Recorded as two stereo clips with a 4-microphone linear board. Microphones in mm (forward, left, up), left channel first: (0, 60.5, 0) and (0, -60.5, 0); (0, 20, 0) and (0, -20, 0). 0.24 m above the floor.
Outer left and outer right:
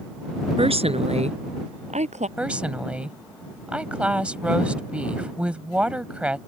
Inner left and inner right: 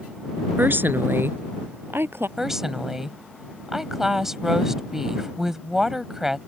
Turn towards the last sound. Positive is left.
turn(degrees=-10)  # may be behind; listen again after turning